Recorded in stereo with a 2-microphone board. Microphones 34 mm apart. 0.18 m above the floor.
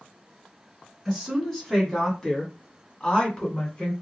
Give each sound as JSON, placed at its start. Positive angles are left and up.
{"t": 1.1, "sound": "a woman speaking", "side_deg": 0, "distance_m": 1.5}